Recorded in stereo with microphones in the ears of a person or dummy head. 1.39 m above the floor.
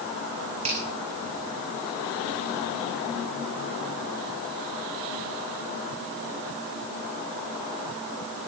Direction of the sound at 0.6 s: 35° right (ahead or behind).